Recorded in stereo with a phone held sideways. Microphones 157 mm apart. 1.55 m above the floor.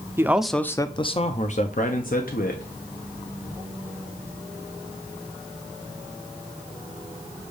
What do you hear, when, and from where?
0.2 s a man speaking: 15° right (ahead or behind), 0.6 m; by 2.6 s 70° left (ahead or behind), 1.3 m